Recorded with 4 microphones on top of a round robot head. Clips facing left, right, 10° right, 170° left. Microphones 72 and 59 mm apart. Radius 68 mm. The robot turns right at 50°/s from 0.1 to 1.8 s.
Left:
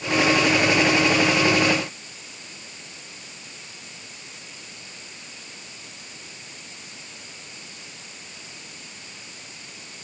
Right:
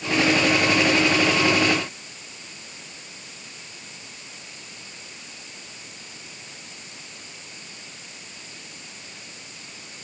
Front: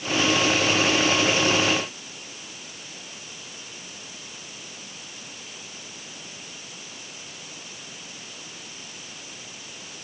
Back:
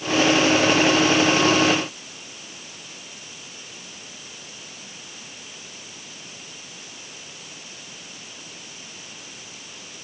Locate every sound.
Only background noise.